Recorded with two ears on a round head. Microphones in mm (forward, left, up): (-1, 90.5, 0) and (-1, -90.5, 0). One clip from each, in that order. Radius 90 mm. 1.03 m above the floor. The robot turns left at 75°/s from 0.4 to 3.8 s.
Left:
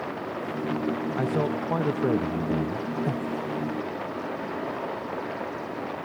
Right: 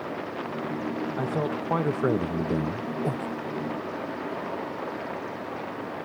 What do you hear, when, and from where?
1.2 s a man speaking: 15° left; by 2.9 s 115° right
3.0 s breathing: 35° right (ahead or behind); by 3.3 s 15° right (ahead or behind)